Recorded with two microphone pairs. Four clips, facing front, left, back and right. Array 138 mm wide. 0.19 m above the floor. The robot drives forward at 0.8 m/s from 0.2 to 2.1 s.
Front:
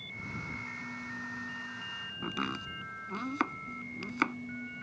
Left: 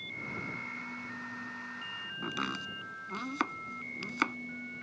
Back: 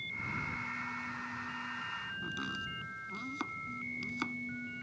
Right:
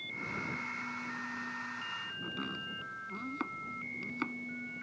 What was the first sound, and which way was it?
Chopping, 50° left.